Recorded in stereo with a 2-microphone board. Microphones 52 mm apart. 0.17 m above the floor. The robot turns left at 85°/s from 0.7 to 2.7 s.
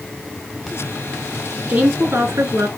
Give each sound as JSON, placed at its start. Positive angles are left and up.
{"t": 1.7, "sound": "a woman speaking", "azimuth_deg": -25, "distance_m": 2.0}